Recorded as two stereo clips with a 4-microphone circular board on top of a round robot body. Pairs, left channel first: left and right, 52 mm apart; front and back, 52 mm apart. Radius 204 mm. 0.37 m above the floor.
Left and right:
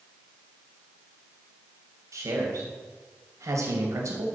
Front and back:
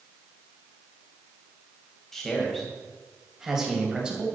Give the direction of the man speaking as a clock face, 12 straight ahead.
3 o'clock.